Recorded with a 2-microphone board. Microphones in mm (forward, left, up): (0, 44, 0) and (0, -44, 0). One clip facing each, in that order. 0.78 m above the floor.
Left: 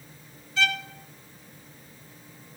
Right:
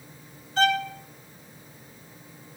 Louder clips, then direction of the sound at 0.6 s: Right 6 dB; 50° right (ahead or behind).